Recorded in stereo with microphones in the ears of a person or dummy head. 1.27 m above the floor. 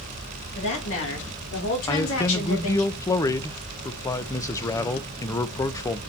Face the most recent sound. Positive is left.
turn(degrees=20)  # may be behind; listen again after turning